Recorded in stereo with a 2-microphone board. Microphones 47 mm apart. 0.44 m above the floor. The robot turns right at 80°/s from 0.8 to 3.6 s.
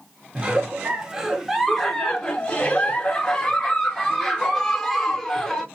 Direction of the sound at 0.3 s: 20° right (ahead or behind).